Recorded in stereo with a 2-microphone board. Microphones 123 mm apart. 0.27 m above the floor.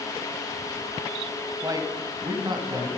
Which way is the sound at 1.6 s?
30° right (ahead or behind).